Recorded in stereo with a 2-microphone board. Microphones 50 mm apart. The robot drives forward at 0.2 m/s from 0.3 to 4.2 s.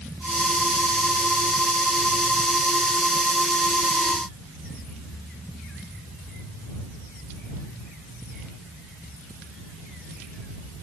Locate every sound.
Only background noise.